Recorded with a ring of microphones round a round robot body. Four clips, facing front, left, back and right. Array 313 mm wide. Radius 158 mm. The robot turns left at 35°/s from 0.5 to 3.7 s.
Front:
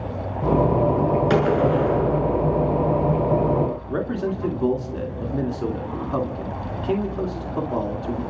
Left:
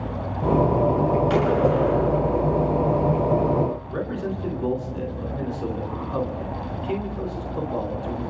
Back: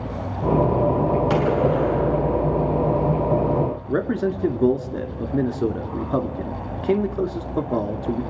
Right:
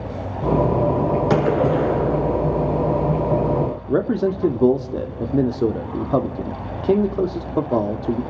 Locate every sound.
1.3 s a gunshot: 70° right, 7.5 m; by 2.5 s 115° right, 7.5 m
3.9 s a man speaking: 110° right, 2.5 m